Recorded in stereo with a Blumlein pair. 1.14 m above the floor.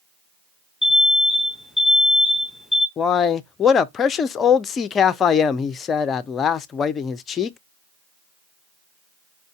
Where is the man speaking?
25° left, 0.5 m.